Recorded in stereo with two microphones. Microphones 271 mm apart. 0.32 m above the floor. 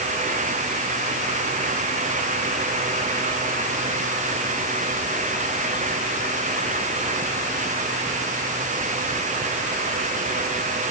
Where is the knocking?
No knocking in this recording.